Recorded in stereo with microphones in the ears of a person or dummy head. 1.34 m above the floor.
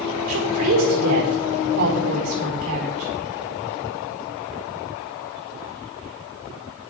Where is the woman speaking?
45° right (ahead or behind), 4.5 m.